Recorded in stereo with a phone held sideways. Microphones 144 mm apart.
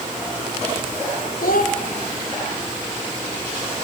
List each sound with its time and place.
1.4 s a child speaking: 75° left (ahead or behind), 1.8 m